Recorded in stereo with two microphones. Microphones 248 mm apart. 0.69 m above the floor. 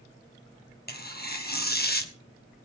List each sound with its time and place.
0.9 s tearing paper: 40° left (ahead or behind), 1.5 m